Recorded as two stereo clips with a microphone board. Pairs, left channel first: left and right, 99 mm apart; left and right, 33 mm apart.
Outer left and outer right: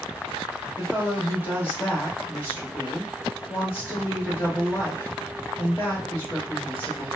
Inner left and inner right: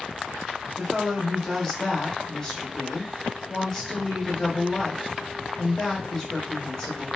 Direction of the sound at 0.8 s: 20° left (ahead or behind).